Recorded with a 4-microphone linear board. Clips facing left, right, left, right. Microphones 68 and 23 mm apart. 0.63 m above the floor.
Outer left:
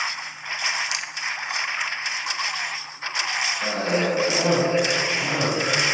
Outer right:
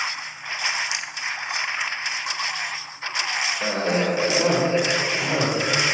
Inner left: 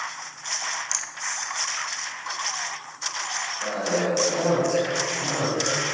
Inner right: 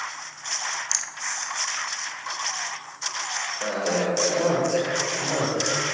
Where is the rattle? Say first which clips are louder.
Even, inner right 2 dB; 25° right (ahead or behind), 0.5 m.